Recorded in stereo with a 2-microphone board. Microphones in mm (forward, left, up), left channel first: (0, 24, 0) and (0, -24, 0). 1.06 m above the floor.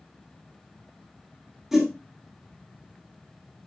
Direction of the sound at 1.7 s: 10° right (ahead or behind).